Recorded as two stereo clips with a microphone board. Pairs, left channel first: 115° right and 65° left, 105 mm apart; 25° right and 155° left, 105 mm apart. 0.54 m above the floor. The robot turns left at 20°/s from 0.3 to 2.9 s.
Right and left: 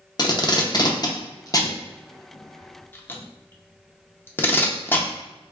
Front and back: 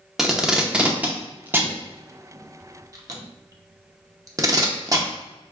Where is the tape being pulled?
120° right, 0.6 m; by 5.1 s 170° right, 0.6 m.